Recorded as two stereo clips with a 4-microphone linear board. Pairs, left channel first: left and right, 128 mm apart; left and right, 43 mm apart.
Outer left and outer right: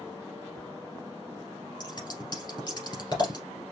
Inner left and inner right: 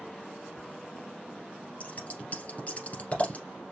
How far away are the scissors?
About 2 m.